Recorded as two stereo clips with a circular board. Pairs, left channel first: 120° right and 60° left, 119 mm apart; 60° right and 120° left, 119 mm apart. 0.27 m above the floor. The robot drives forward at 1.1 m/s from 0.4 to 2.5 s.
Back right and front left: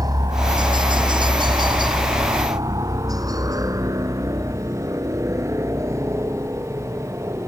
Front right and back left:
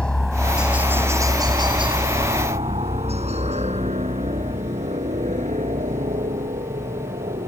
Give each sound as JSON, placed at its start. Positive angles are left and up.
{"t": 0.0, "sound": "a helicopter", "azimuth_deg": 20}